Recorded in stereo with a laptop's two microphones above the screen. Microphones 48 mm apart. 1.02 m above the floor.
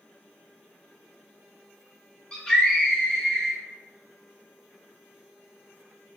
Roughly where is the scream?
Left.